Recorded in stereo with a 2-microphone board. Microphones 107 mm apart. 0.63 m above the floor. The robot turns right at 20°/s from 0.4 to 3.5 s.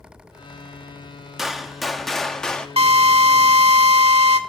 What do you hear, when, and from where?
1.4 s a gunshot: 5° right (ahead or behind), 1.3 m; by 2.7 s 10° left (ahead or behind), 1.3 m
2.8 s a drill: 75° right (ahead or behind), 1.2 m; by 4.4 s 80° right, 1.2 m